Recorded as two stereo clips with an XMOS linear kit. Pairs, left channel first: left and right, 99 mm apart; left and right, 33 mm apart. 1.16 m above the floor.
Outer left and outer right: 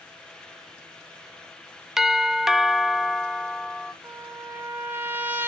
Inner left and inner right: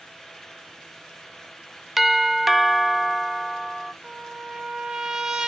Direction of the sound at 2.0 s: 5° right (ahead or behind).